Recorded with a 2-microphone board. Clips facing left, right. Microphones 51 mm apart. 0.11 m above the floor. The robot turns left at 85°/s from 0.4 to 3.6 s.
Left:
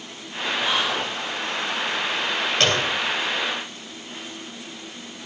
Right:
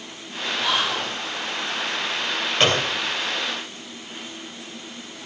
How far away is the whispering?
About 4.5 m.